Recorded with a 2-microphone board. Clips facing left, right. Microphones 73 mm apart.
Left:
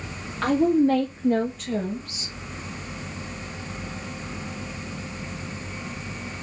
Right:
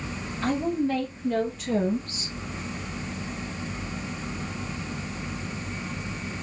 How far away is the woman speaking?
About 1.1 m.